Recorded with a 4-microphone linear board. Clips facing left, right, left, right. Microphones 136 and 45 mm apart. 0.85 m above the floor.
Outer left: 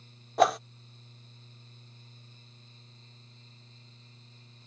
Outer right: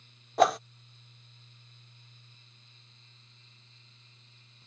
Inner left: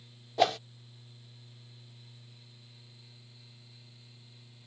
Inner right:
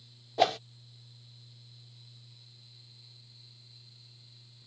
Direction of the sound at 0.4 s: Centre (ahead or behind).